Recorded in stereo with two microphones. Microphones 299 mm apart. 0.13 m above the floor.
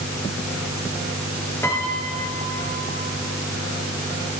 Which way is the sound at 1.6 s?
10° left (ahead or behind).